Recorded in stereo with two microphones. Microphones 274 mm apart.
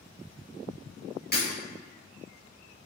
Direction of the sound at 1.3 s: 40° left (ahead or behind).